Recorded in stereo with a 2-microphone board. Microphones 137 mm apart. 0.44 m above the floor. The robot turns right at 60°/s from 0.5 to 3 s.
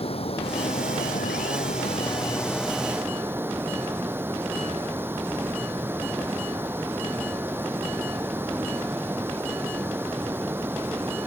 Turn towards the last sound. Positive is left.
turn(degrees=-165)